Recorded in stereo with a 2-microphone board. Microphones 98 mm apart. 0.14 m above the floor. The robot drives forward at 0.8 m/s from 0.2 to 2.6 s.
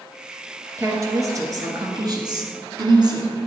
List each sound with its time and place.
0.8 s a woman speaking: 30° right (ahead or behind), 2.5 m; by 3.4 s 45° right (ahead or behind), 1.7 m